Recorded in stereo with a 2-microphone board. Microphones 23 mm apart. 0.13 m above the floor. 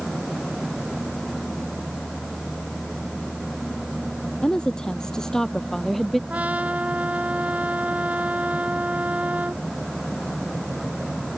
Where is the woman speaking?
40° left (ahead or behind); by 6.2 s 5° left (ahead or behind).